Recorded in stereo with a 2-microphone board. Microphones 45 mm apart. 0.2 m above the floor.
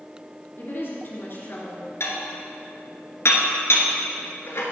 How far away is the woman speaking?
About 3 m.